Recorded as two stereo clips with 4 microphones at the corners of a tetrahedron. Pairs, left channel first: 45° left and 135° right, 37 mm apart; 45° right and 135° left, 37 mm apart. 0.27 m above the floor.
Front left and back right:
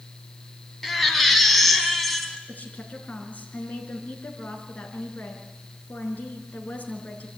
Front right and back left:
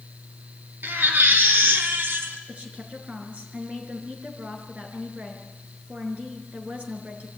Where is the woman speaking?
85° left, 4.5 m.